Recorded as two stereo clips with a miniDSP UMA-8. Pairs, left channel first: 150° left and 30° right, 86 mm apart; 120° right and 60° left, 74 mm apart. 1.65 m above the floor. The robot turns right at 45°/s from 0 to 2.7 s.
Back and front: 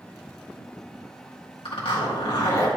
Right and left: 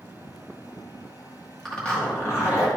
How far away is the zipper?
About 2.0 m.